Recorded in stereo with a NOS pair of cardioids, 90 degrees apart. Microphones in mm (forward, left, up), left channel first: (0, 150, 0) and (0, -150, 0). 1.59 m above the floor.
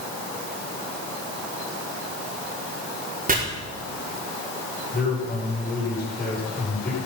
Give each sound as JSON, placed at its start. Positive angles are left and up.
{"t": 3.3, "sound": "chopping", "azimuth_deg": -30, "distance_m": 5.0}
{"t": 4.9, "sound": "a man speaking", "azimuth_deg": 30, "distance_m": 7.5}